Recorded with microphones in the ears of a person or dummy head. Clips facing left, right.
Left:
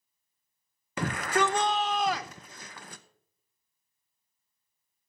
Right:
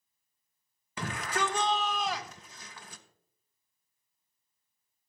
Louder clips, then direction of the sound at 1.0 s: Left 6 dB; 45° left (ahead or behind).